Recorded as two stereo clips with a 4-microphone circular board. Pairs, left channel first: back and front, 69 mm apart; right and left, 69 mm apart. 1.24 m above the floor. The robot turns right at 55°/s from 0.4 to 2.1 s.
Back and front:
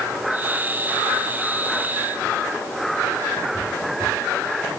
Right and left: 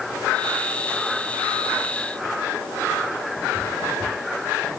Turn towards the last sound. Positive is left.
No sound to turn to.